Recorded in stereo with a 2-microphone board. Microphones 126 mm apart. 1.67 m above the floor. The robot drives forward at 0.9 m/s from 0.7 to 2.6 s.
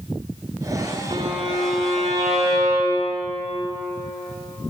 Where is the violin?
55° right (ahead or behind), 6 m; by 3.2 s 65° right (ahead or behind), 5.5 m.